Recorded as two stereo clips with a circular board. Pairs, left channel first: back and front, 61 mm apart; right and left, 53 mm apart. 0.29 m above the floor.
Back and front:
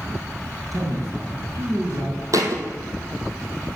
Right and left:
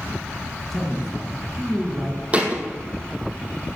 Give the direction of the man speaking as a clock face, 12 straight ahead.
12 o'clock.